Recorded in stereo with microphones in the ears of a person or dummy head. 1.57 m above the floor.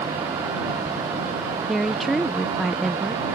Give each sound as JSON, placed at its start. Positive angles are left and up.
{"t": 1.7, "sound": "a woman speaking", "side_deg": -5}